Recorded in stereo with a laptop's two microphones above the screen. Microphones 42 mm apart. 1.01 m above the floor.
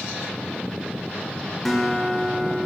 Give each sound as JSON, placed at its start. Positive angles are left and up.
{"t": 1.6, "sound": "a guitar", "side_deg": 0, "distance_m": 3.0}